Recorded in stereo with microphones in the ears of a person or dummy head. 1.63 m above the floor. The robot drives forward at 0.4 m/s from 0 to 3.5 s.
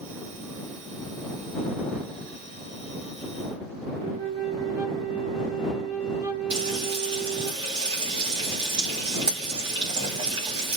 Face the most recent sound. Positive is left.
turn(degrees=-20)  # may be behind; listen again after turning